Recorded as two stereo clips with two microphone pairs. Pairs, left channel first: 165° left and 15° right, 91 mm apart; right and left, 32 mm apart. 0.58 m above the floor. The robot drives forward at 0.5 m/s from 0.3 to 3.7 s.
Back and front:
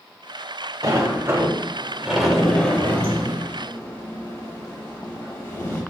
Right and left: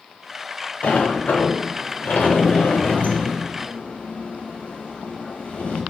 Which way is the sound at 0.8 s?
60° right.